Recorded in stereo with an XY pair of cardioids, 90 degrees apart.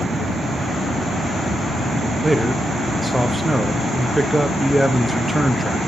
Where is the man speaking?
5° right, 0.6 m.